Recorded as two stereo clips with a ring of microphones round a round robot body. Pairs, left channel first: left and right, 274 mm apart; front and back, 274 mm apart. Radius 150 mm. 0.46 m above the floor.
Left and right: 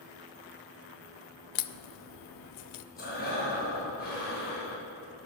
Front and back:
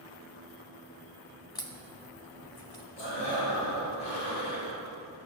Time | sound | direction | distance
1.6 | a crack | 80° left | 0.5 m
3.0 | breathing | 35° left | 4 m